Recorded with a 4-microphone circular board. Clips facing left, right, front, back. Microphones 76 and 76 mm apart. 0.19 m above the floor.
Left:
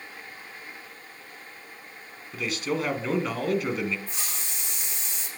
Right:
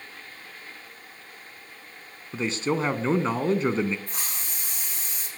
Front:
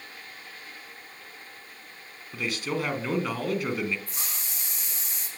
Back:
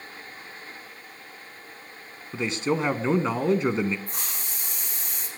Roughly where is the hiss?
Behind right.